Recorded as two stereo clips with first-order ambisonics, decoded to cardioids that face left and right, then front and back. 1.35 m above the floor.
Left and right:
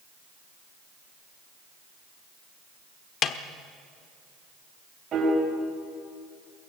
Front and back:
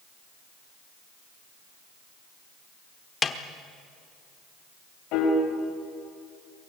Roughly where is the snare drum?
Ahead left.